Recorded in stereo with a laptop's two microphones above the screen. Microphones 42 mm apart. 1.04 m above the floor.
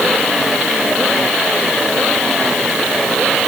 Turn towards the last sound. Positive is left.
No sound to turn to.